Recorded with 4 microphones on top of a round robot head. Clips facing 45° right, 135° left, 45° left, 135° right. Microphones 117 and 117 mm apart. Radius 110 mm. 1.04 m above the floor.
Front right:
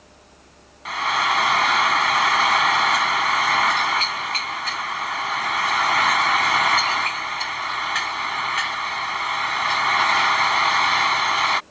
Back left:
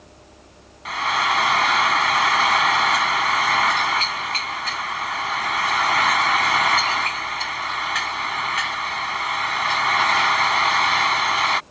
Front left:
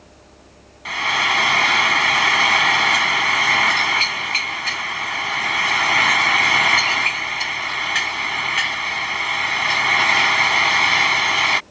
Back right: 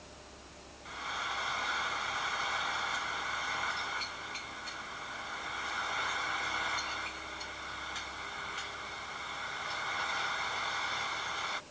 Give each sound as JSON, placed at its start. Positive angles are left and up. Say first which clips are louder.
{"t": 0.8, "sound": "frying", "louder": "even, front left 17 dB", "azimuth_deg": 45}